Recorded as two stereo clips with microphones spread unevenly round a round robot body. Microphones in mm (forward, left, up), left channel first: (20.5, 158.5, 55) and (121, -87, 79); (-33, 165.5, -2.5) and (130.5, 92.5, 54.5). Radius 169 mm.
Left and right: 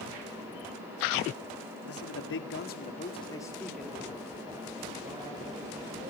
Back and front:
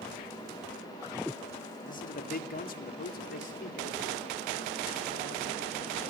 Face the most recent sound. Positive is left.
turn(degrees=-135)